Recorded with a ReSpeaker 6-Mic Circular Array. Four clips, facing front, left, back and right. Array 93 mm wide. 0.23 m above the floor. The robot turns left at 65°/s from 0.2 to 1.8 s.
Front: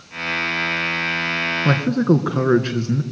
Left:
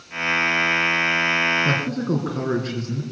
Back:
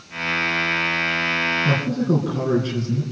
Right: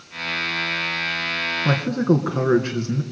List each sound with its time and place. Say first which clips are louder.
1.6 s a man speaking: right 4 dB, front 6 dB; 15° right, 2.5 m; by 3.0 s 25° right, 2.5 m